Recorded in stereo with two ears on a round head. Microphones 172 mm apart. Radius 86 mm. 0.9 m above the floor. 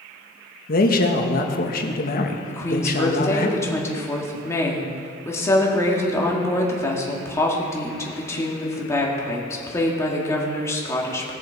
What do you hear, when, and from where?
0.7 s a man speaking: 50° left (ahead or behind), 1.2 m
2.5 s a woman speaking: 15° left (ahead or behind), 1.9 m